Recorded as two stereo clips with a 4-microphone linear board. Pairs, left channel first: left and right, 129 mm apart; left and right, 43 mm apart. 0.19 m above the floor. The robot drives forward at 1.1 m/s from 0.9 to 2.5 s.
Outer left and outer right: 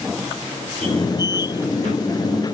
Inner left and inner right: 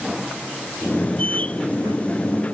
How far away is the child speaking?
I don't hear a child speaking.